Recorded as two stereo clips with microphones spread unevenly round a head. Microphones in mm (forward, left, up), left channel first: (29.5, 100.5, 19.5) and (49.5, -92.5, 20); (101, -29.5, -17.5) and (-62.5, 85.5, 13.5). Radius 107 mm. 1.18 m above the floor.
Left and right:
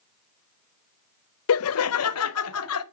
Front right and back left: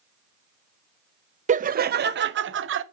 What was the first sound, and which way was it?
Laughter, 90° left.